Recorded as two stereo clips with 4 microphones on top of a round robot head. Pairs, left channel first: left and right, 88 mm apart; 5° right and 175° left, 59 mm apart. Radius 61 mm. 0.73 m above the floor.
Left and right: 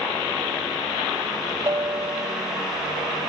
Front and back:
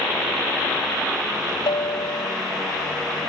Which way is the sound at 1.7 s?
25° right.